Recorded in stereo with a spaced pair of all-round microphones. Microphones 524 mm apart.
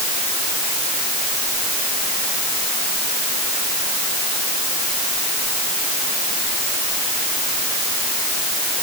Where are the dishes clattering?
I don't hear dishes clattering.